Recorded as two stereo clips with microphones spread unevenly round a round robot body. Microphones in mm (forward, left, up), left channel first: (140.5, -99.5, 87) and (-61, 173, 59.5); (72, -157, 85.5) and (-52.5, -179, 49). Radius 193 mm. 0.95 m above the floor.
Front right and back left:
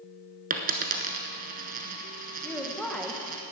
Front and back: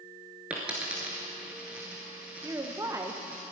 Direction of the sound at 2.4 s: 145° right.